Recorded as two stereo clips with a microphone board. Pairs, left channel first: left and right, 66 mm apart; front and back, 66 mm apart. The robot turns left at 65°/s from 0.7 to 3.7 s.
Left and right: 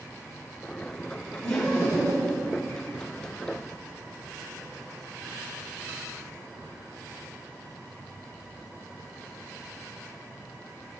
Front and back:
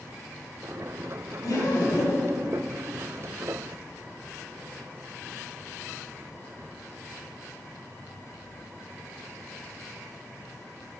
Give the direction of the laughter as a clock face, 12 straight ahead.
12 o'clock.